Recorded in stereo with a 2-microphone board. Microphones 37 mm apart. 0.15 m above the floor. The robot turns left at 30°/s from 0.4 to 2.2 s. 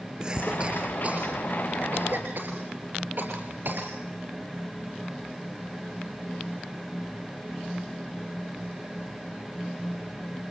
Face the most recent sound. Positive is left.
turn(degrees=-60)  # may be behind; listen again after turning